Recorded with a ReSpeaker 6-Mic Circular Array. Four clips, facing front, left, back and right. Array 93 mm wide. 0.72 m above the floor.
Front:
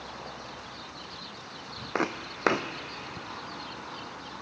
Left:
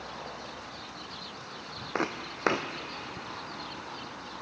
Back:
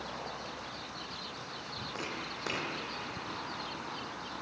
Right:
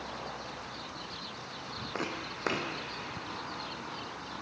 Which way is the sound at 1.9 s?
25° left.